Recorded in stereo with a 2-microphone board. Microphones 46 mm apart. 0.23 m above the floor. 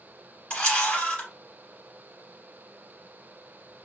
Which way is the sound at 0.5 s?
25° left (ahead or behind).